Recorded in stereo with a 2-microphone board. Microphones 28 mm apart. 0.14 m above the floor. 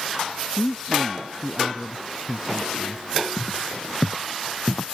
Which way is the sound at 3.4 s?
45° left (ahead or behind).